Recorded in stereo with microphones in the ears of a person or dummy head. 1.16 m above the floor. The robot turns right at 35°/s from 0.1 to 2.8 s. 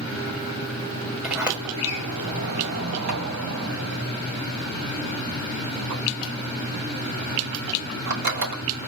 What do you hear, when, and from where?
1.2 s a sliding door: centre (ahead or behind), 1.7 m; by 8.6 s 55° right (ahead or behind), 1.7 m